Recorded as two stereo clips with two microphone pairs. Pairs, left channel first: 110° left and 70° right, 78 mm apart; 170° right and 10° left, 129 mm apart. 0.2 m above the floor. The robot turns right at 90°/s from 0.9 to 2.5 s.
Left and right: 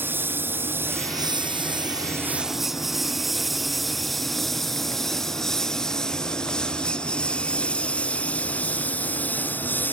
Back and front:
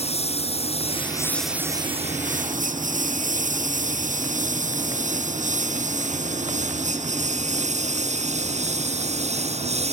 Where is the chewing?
No chewing in this recording.